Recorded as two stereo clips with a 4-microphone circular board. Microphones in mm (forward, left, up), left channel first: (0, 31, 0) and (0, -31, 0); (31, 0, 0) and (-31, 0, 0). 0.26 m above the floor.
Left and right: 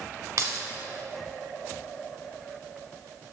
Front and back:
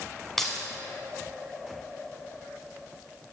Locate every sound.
0.4 s keys jangling: 85° right, 1.7 m